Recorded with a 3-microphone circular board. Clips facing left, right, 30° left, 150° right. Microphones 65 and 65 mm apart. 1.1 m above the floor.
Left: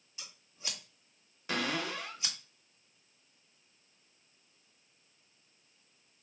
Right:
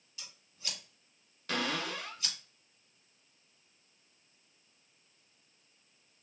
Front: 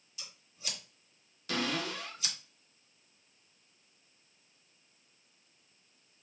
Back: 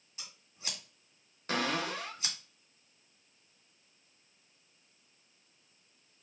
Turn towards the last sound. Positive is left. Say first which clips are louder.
# even, back 2 dB
turn(degrees=165)